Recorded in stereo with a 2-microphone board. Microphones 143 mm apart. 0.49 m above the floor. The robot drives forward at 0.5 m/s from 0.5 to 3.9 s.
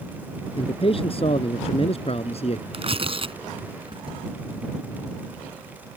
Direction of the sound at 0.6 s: 40° left (ahead or behind).